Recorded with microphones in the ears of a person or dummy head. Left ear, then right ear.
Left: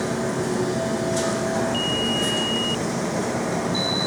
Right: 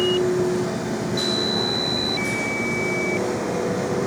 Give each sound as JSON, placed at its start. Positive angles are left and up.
{"t": 0.0, "sound": "a machine running", "side_deg": 75, "distance_m": 2.0}